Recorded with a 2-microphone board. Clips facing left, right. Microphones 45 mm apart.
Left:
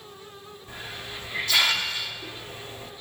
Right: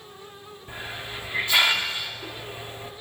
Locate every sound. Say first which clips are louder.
0.7 s a hiss: right 3 dB; 25° right (ahead or behind), 2.0 m